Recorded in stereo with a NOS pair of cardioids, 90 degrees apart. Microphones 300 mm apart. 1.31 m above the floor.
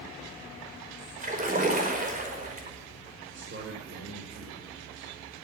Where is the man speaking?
40° right, 5 m.